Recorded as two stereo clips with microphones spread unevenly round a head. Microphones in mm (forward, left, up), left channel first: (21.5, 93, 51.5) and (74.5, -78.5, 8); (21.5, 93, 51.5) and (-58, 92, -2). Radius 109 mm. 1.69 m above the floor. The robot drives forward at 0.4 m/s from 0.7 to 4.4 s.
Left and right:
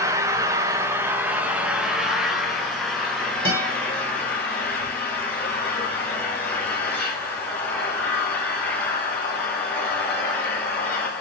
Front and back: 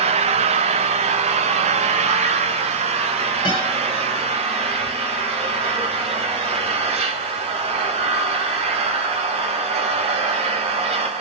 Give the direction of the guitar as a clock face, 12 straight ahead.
12 o'clock.